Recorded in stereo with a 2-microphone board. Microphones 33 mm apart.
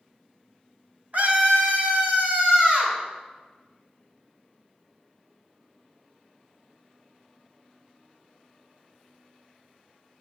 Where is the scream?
50° right (ahead or behind), 2.5 m; by 3.0 s 35° right (ahead or behind), 4 m.